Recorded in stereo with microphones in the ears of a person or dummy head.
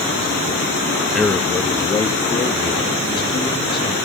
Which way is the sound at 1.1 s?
5° left (ahead or behind).